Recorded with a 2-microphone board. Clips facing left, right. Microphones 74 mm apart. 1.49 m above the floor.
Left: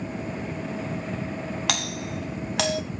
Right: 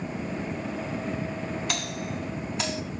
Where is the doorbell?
80° left, 2.5 m.